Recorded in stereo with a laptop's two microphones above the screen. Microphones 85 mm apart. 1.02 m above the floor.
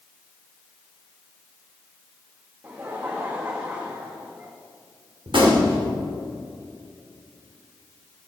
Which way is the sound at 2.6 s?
25° right (ahead or behind).